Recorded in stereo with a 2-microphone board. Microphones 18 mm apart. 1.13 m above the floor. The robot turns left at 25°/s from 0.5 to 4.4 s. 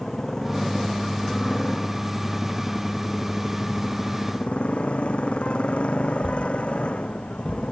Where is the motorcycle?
25° left (ahead or behind); by 7.7 s 75° left (ahead or behind).